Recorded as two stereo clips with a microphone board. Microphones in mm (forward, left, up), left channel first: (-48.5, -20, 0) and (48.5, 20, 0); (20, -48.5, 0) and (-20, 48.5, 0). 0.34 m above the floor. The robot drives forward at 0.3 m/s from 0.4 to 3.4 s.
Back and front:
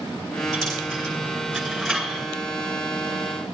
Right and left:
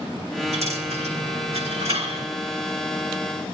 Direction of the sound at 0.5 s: 115° left.